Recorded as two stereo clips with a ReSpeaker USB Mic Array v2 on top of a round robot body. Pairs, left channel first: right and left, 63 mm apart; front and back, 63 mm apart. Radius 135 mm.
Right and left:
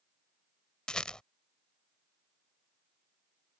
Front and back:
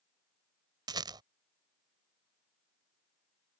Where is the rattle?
170° right.